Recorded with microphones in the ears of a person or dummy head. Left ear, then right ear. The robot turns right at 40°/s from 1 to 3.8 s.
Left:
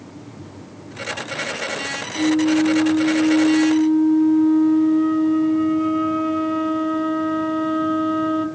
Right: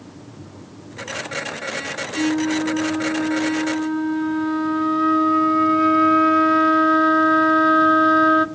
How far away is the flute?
About 1.1 m.